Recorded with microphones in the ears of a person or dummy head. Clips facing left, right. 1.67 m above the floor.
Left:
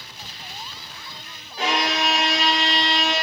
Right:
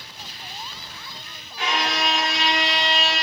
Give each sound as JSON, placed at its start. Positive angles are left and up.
{"t": 1.6, "sound": "a violin", "side_deg": 35, "distance_m": 1.2}